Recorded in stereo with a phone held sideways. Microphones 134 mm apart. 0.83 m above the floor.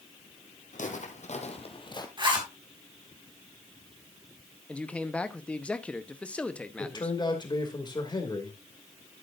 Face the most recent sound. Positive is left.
turn(degrees=35)  # may be behind; listen again after turning